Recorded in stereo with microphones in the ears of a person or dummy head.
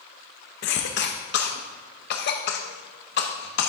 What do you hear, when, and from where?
0.6 s a cough: 55° left (ahead or behind), 0.6 m